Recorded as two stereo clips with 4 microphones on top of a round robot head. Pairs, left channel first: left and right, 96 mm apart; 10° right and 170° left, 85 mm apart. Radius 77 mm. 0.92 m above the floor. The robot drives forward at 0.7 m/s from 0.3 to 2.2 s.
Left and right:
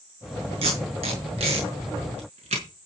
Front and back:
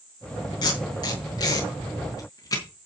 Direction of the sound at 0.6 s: 55° right.